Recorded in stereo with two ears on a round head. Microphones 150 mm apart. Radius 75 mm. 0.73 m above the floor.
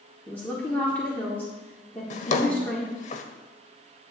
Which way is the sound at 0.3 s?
10° left (ahead or behind).